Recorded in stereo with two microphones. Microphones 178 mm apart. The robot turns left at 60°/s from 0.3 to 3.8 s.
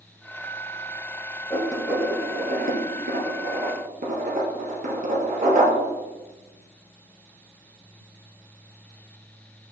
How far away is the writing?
About 2 m.